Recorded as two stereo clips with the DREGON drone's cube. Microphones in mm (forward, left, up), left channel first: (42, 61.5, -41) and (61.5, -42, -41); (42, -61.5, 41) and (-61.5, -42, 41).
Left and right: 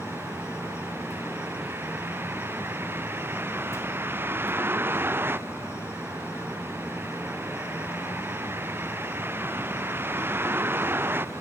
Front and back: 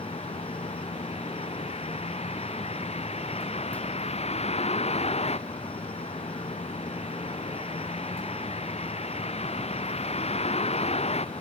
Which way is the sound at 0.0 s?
10° right.